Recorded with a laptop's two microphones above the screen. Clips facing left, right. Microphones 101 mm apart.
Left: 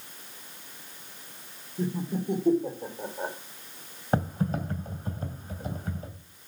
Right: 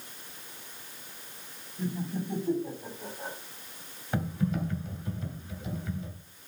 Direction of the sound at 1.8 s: 85° left.